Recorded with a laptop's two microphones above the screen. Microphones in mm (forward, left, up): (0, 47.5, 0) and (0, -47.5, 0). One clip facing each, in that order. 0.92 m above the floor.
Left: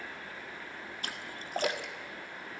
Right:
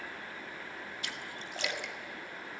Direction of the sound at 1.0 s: 40° left (ahead or behind).